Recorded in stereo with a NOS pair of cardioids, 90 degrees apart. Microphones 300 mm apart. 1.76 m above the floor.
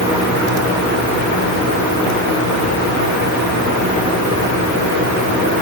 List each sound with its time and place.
Only background noise.